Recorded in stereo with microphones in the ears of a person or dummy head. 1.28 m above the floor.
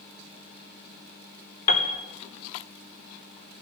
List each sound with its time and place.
1.7 s a piano: 45° left (ahead or behind), 0.8 m